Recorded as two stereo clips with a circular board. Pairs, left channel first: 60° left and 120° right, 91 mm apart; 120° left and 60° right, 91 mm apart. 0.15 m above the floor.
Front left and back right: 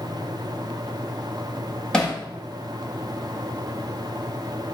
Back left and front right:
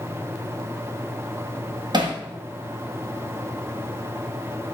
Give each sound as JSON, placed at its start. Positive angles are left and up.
{"t": 1.9, "sound": "hammering", "azimuth_deg": -20, "distance_m": 2.5}